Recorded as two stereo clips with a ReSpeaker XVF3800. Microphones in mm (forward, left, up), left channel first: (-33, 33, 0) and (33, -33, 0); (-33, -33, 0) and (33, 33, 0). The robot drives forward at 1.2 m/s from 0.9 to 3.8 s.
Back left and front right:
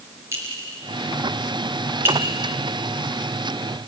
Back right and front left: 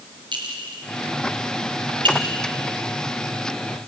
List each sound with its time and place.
0.3 s a clink: 15° left, 5 m; by 2.2 s 20° left, 3.5 m